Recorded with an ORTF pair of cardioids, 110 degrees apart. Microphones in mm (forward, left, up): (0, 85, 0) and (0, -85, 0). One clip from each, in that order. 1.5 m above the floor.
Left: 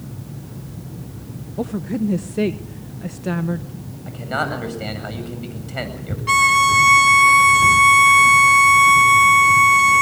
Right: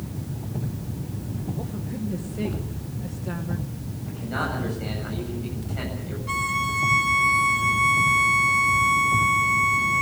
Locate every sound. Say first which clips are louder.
1.6 s a woman speaking: left 9 dB; 55° left, 0.9 m
4.1 s a man speaking: left 6 dB; 60° left, 8.5 m
6.3 s a violin: left 12 dB; 60° left, 0.7 m